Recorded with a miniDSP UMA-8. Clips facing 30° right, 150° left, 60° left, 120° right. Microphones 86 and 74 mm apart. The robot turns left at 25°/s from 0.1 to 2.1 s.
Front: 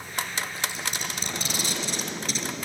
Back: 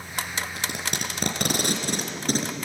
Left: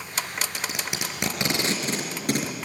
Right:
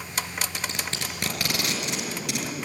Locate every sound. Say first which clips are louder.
0.6 s tape being pulled: back 1 dB, left 1 dB; 145° left, 4 m; by 2.5 s 110° left, 4 m